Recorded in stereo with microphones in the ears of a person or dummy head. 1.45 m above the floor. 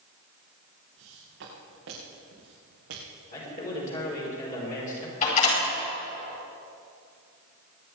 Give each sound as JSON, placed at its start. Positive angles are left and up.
{"t": 1.0, "sound": "footsteps", "side_deg": -75, "distance_m": 5.5}
{"t": 3.3, "sound": "a man speaking", "side_deg": 40, "distance_m": 4.0}
{"t": 5.2, "sound": "a door slam", "side_deg": 40, "distance_m": 5.0}